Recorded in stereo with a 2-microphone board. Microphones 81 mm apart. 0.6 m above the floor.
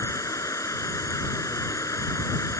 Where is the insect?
45° left (ahead or behind).